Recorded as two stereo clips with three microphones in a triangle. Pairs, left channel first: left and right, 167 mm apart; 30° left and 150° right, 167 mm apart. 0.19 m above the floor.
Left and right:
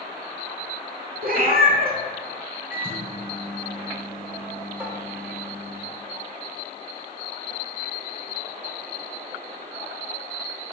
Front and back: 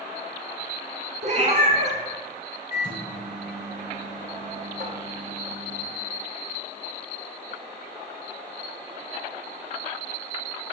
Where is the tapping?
165° right, 1.5 m.